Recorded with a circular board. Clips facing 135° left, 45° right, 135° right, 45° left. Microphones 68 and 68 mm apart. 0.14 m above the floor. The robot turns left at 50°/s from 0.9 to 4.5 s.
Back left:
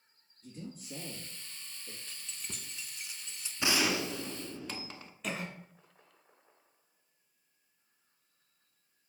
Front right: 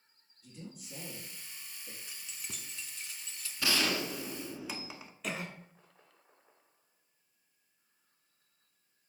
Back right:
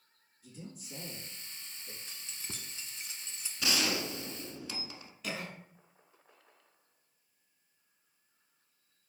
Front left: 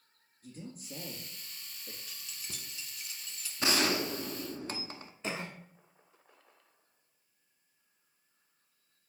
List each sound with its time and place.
0.4 s a man speaking: 75° left, 2.5 m; by 2.0 s 20° left, 2.5 m
2.1 s keys jangling: 110° right, 0.9 m; by 3.5 s straight behind, 0.9 m
3.6 s a gunshot: 75° left, 0.8 m; by 5.1 s 30° left, 0.8 m
5.2 s a cough: 45° left, 1.2 m